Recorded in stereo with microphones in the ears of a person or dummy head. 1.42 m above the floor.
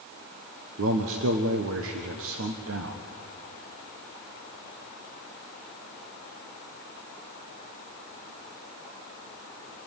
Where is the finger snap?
I don't hear a finger snap.